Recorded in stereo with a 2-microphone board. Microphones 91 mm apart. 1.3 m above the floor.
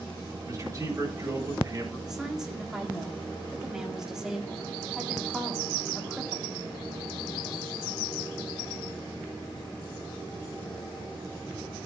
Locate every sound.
0.5 s a man speaking: 35° right (ahead or behind), 9 m
2.1 s a woman speaking: 5° right (ahead or behind), 3.5 m